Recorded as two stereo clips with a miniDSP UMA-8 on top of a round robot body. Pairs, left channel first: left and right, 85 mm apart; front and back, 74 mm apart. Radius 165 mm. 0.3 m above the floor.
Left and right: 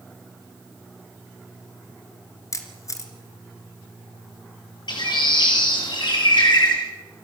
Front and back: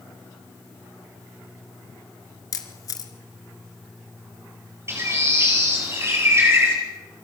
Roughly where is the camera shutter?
Ahead left.